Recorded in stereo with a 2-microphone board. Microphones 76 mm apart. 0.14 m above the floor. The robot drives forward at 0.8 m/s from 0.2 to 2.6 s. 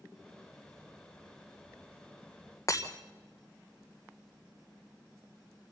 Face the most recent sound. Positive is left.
turn(degrees=45)  # may be behind; listen again after turning